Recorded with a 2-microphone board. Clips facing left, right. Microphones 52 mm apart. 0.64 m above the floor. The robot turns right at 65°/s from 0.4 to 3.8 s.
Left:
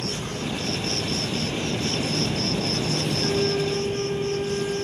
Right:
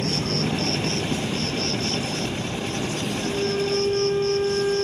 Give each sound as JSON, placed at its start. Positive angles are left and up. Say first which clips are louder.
{"t": 0.0, "sound": "an insect", "louder": "right 5 dB", "azimuth_deg": -65}
{"t": 3.2, "sound": "a flute", "louder": "even", "azimuth_deg": 165}